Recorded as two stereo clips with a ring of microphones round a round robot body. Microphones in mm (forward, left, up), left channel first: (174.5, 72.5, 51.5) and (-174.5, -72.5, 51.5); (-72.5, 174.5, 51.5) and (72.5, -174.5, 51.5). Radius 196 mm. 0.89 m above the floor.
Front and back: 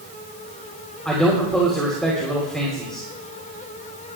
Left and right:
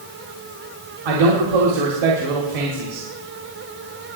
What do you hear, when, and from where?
1.1 s a man speaking: 65° right, 3 m